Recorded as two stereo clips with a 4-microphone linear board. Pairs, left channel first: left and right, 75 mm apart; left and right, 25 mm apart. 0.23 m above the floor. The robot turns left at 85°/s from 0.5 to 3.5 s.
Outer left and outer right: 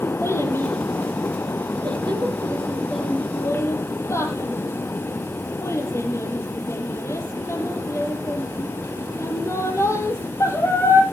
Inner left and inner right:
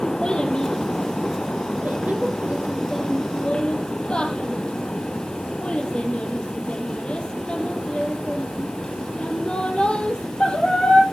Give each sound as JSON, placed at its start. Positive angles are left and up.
{"t": 0.2, "sound": "a child speaking", "side_deg": 35, "distance_m": 4.5}